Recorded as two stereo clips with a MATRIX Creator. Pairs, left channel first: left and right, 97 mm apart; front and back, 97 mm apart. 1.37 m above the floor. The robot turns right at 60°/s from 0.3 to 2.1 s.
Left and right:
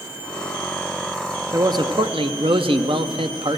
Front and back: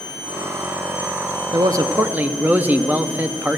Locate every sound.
1.5 s a man speaking: 145° right, 0.7 m; by 3.6 s 110° right, 0.7 m